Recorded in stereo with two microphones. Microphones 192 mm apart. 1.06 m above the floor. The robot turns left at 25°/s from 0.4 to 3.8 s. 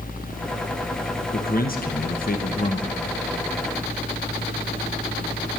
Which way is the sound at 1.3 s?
105° left.